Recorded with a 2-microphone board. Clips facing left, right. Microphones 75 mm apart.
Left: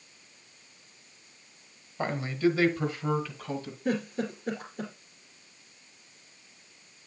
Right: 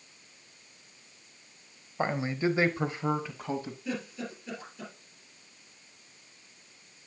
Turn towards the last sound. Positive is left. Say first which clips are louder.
# left 11 dB
turn(degrees=45)  # may be behind; listen again after turning